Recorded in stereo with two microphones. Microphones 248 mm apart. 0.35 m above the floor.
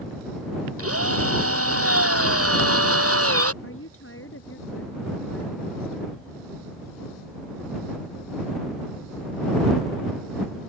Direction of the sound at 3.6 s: 60° left (ahead or behind).